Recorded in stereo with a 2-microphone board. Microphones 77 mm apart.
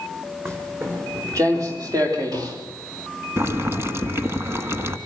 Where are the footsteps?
35° right (ahead or behind), 4.5 m; by 2.6 s 55° right (ahead or behind), 5 m.